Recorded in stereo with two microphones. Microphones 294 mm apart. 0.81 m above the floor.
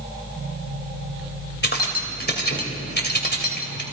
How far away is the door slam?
No door slam in this recording.